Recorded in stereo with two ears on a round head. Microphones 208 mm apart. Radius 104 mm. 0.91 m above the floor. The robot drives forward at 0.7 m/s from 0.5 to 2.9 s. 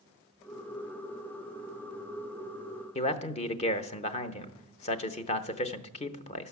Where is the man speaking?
30° left (ahead or behind), 0.7 m.